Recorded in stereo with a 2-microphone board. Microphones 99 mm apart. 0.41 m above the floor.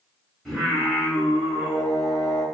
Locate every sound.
0.5 s singing: centre (ahead or behind), 1.9 m